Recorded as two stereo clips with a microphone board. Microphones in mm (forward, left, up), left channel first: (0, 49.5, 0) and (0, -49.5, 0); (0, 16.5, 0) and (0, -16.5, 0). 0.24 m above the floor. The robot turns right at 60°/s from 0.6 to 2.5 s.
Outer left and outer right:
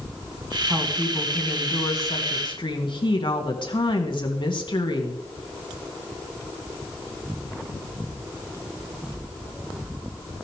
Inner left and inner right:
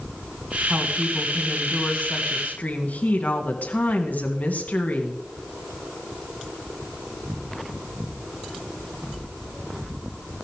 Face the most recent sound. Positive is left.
turn(degrees=80)